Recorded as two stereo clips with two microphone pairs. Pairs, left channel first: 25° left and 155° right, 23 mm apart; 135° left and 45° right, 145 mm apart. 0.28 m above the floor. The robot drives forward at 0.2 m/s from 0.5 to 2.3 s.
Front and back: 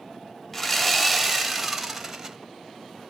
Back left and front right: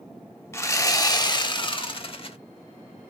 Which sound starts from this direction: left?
Sawing, at 0.5 s.